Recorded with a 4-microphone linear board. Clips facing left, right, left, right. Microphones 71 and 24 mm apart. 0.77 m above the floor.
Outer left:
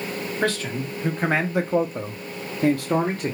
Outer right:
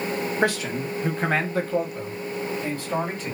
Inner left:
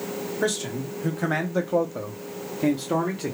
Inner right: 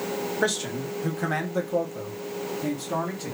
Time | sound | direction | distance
0.4 | a man speaking | 15° right (ahead or behind) | 1.0 m